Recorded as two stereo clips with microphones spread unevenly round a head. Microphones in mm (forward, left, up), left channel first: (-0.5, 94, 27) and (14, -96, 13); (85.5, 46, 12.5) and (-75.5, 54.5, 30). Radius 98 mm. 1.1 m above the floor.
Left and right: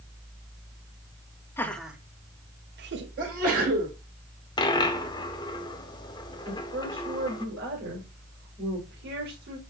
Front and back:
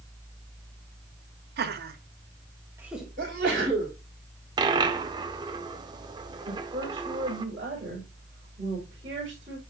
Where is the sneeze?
135° right, 5 m.